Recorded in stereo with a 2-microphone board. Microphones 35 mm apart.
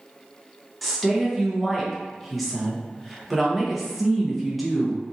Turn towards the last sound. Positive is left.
turn(degrees=0)  # may be behind; listen again after turning